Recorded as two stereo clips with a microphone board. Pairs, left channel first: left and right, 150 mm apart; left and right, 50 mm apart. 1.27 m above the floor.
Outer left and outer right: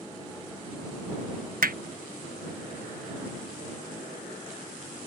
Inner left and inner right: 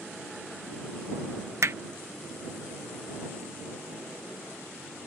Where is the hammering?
70° right (ahead or behind).